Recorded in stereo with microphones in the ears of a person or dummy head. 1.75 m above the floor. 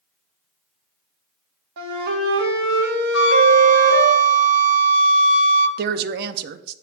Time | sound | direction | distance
1.8 | a flute | 55° right (ahead or behind) | 1.4 m
3.1 | a flute | 60° left (ahead or behind) | 1.0 m
5.8 | a woman speaking | 55° right (ahead or behind) | 0.6 m